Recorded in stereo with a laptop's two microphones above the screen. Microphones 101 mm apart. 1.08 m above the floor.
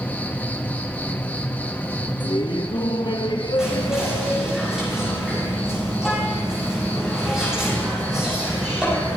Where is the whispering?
5° right (ahead or behind), 6.5 m.